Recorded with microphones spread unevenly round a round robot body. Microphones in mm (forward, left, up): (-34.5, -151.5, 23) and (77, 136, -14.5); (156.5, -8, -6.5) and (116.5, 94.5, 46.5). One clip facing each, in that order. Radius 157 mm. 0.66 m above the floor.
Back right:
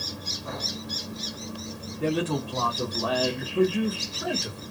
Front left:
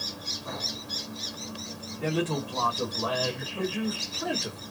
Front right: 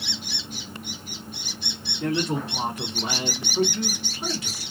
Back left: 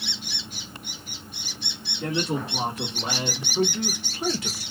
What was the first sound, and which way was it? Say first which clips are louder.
A man speaking: back right 2 dB, front right 2 dB; 110° right.